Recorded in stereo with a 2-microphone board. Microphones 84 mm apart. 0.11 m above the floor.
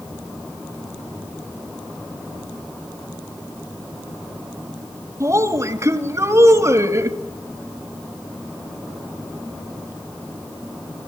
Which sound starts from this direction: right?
A woman speaking, at 5.2 s.